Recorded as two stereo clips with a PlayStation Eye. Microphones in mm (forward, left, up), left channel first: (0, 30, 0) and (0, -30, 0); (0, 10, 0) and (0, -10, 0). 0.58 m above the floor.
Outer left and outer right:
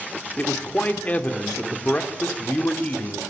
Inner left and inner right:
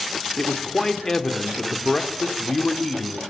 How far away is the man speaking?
About 1.6 m.